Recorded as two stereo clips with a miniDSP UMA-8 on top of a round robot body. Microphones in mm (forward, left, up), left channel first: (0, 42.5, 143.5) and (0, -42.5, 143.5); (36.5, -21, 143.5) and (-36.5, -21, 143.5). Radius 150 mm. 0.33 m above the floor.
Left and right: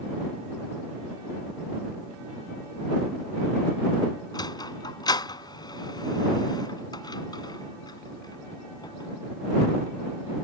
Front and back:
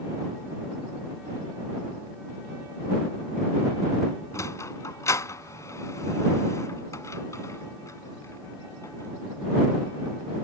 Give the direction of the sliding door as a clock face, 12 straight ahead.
10 o'clock.